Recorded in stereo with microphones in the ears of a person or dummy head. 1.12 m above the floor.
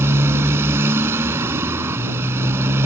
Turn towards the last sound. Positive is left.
turn(degrees=-20)  # may be behind; listen again after turning